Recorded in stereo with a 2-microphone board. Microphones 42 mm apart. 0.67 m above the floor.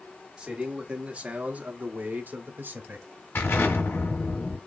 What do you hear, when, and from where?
0.4 s a man speaking: 20° right (ahead or behind), 1.8 m; by 3.1 s 50° right (ahead or behind), 1.1 m
3.4 s an explosion: 75° left (ahead or behind), 2 m